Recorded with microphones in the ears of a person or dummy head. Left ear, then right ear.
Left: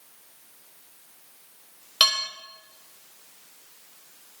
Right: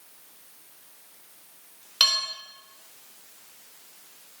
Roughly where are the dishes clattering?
Centre.